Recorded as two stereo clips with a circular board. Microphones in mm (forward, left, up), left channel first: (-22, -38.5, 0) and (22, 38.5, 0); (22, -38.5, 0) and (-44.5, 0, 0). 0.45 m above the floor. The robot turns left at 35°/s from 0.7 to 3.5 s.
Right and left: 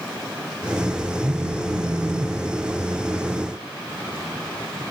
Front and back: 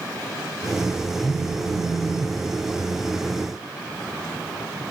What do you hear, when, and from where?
1.2 s a phone buzzing: 5° right, 2.0 m; by 2.4 s 45° right, 2.0 m